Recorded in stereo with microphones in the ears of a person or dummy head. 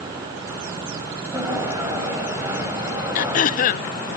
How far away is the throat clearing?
About 0.5 m.